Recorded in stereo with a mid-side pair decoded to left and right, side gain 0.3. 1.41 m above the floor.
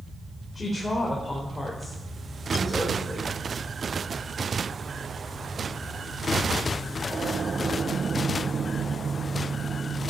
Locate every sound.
0.6 s a woman speaking: 30° left, 4 m; by 3.3 s 5° right, 5 m